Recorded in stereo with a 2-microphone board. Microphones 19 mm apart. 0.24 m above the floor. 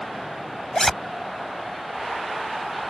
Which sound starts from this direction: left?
A zipper, at 0.7 s.